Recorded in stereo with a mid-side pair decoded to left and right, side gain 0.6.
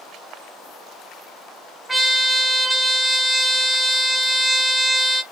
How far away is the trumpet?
About 0.9 m.